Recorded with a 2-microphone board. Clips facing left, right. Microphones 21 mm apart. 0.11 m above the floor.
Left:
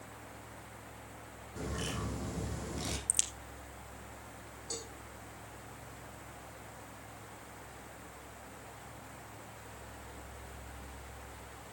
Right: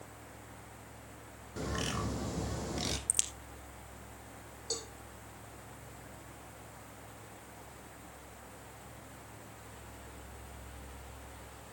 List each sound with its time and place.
1.6 s a bird: 30° right (ahead or behind), 1.7 m
3.1 s a crack: centre (ahead or behind), 1.8 m
4.7 s a cowbell: 30° right (ahead or behind), 2.5 m